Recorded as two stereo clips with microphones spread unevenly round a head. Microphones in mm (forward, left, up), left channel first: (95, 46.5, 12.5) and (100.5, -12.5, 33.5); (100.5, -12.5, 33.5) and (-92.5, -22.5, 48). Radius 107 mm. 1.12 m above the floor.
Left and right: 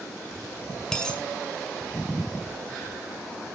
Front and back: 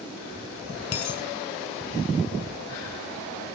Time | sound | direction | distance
0.9 | a dropped coin | 15° left | 6 m